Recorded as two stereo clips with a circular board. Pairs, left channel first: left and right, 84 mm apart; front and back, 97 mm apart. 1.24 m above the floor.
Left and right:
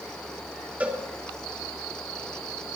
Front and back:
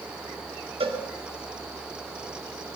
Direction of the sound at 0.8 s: 160° right.